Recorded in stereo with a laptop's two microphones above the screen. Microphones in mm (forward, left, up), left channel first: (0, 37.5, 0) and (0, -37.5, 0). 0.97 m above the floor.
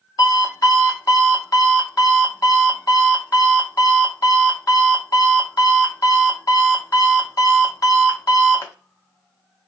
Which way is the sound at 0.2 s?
50° left (ahead or behind).